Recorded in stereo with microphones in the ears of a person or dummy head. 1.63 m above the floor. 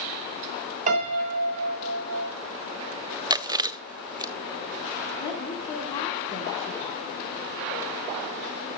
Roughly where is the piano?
Right.